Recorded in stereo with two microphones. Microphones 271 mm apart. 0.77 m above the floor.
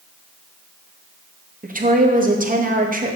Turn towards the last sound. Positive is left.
turn(degrees=-30)  # may be behind; listen again after turning